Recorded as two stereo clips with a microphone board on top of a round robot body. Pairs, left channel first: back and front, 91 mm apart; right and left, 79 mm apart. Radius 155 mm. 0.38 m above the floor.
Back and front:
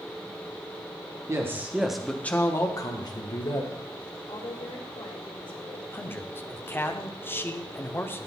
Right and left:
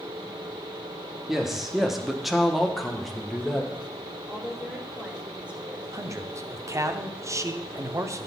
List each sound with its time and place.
1.3 s a man speaking: 5° left, 1.4 m; by 3.7 s straight behind, 2 m
4.3 s a woman speaking: 160° left, 2.5 m
5.9 s a man speaking: 125° left, 1.0 m